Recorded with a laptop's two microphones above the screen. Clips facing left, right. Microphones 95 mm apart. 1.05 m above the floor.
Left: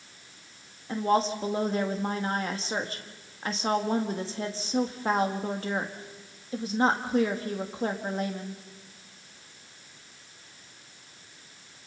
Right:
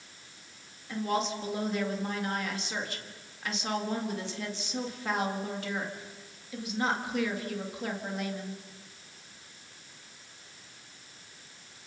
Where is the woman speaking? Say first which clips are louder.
Left 6 dB; 35° left (ahead or behind), 2.0 m.